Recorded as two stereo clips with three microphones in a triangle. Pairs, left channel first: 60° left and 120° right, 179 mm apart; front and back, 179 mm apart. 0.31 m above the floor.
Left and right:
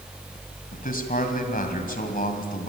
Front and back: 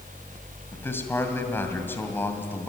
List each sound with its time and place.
0.7 s a man speaking: 75° left, 2 m